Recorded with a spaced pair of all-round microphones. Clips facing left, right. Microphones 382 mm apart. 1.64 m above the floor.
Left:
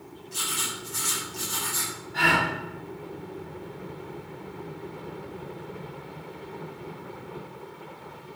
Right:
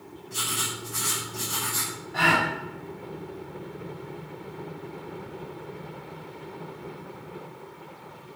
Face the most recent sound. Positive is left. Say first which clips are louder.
# right 1 dB
turn(degrees=-75)  # may be behind; listen again after turning